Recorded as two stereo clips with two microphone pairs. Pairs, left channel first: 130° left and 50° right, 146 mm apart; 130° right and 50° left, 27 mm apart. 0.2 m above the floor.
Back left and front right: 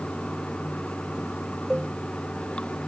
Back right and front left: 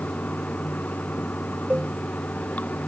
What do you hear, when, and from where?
0.0 s running water: 150° right
1.7 s a cowbell: 40° left